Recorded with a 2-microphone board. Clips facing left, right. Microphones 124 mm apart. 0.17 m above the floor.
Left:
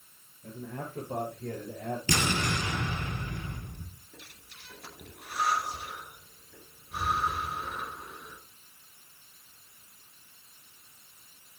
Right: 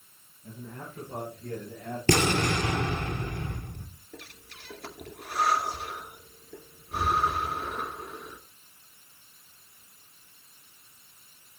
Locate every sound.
0.4 s a man speaking: 80° left, 9 m; by 2.0 s 75° left (ahead or behind), 8 m
2.1 s an explosion: 55° right (ahead or behind), 2.5 m
4.1 s breathing: 65° right (ahead or behind), 2.5 m